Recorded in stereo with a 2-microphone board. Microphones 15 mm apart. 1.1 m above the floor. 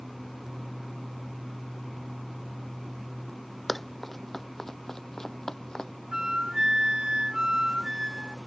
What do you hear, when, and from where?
3.7 s running footsteps: 5° left (ahead or behind); by 5.9 s 45° left (ahead or behind)
6.1 s a flute: 45° right (ahead or behind)